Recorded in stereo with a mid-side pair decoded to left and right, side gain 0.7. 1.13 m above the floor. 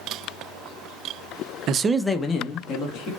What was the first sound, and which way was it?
A man speaking, 50° right.